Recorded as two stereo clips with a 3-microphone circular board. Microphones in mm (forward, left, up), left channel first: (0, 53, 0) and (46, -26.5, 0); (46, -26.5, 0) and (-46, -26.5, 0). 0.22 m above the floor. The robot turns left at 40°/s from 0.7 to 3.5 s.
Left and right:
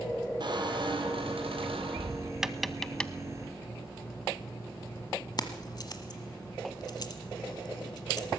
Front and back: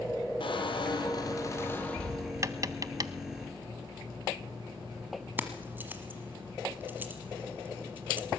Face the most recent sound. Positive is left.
turn(degrees=120)